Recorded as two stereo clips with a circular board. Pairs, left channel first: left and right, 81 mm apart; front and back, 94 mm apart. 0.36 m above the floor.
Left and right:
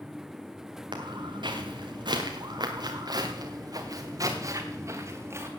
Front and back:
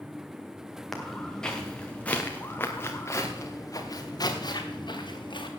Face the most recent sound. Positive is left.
turn(degrees=-35)